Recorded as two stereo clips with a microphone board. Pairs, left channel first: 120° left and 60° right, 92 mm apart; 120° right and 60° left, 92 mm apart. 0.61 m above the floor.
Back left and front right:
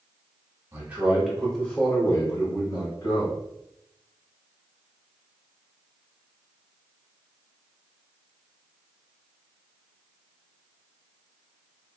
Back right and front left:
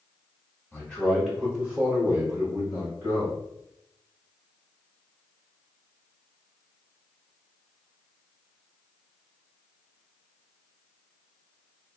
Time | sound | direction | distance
0.7 | a man speaking | 65° right | 1.1 m